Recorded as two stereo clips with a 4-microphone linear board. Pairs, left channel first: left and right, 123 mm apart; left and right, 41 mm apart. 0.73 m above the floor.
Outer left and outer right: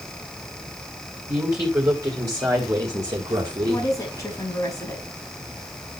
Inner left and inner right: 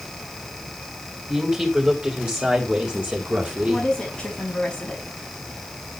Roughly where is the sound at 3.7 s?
Left.